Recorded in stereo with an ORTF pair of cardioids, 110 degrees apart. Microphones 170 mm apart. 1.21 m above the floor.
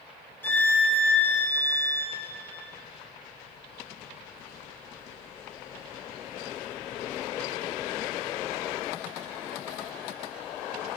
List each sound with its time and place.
0.4 s a violin: 10° left, 2.5 m